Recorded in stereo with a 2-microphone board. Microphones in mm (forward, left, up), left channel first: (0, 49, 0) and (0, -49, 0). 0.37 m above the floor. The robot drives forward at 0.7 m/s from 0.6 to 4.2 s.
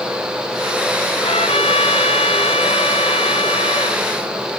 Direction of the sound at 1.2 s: 85° left.